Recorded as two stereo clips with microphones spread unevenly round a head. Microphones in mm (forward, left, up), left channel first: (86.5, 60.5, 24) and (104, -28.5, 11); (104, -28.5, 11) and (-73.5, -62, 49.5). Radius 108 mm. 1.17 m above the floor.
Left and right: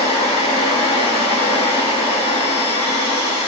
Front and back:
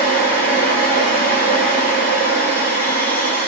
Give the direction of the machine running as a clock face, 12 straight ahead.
8 o'clock.